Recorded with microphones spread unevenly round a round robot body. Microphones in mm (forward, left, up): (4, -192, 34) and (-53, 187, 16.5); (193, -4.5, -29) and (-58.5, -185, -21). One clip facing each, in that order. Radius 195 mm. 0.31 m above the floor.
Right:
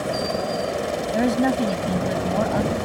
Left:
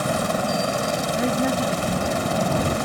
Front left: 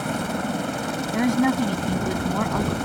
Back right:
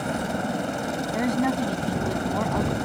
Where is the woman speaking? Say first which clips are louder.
Right 4 dB, front left 4 dB; 25° right.